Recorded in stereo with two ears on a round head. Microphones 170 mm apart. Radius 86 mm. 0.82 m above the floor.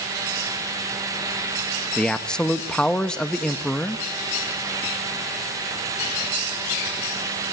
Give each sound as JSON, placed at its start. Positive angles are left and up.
{"t": 2.0, "sound": "a man speaking", "side_deg": 5, "distance_m": 0.8}